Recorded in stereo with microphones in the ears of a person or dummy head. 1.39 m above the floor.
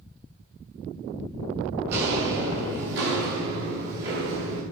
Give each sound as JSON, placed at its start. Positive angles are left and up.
{"t": 1.9, "sound": "footsteps", "side_deg": -65, "distance_m": 10.0}